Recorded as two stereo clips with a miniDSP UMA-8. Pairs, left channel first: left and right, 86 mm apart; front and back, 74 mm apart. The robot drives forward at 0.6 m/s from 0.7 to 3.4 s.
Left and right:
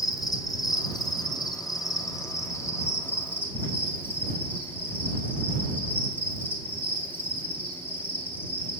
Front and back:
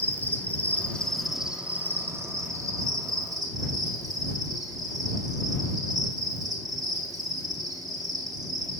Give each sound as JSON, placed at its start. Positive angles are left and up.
{"t": 0.0, "sound": "an insect", "azimuth_deg": 65, "distance_m": 0.9}